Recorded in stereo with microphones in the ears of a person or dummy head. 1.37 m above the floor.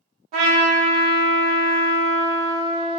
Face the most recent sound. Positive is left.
turn(degrees=-40)  # may be behind; listen again after turning